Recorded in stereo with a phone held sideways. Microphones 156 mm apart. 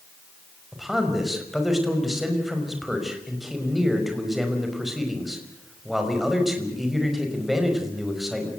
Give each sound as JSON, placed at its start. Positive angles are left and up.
{"t": 0.7, "sound": "a man speaking", "side_deg": 0, "distance_m": 5.0}